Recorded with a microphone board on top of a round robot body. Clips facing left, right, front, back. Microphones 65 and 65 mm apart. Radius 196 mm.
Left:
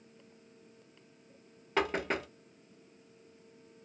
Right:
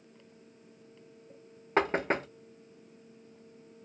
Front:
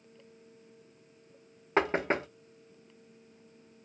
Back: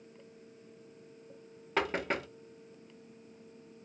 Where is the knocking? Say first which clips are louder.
Right 4 dB, front 4 dB; 50° right, 0.8 m.